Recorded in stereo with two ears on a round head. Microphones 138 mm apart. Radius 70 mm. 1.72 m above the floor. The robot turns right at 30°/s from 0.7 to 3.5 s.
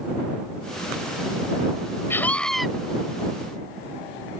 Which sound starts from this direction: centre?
A scream, at 2.1 s.